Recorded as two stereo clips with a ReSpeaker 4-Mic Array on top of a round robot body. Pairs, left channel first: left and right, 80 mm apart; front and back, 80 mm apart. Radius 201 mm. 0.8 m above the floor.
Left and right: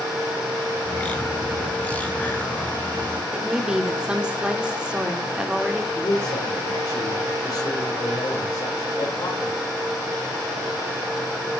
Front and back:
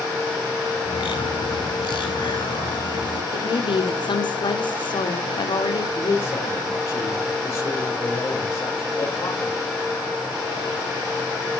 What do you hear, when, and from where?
0.8 s a bird: 15° left, 3 m
3.3 s a woman speaking: 10° right, 3 m
6.0 s a man speaking: 40° left, 4 m